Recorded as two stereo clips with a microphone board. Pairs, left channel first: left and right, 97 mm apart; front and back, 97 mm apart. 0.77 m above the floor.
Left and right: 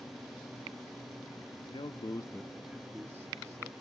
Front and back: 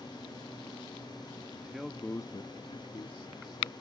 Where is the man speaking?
105° left; by 3.7 s 35° right.